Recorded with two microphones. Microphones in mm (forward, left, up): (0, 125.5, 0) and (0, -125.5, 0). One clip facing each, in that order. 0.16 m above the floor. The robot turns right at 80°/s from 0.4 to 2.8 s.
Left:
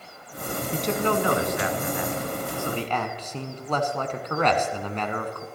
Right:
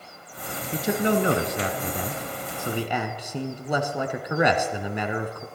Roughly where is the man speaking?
Behind.